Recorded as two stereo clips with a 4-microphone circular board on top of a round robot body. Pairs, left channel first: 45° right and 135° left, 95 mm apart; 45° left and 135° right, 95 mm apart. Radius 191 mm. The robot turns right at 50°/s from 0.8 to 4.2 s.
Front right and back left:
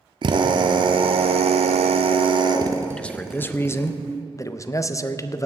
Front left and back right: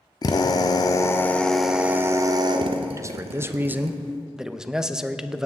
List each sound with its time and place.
0.2 s a drill: 95° left, 0.5 m; by 3.9 s 110° right, 0.5 m
2.9 s a man speaking: 120° right, 0.8 m; by 5.5 s 55° right, 0.8 m